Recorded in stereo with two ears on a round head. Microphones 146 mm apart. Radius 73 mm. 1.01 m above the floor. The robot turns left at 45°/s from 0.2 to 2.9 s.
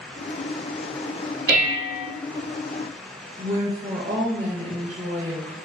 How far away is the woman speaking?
About 1.0 m.